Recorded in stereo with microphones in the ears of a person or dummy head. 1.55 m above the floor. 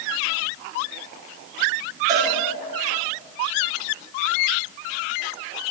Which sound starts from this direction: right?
A cowbell, at 2.1 s.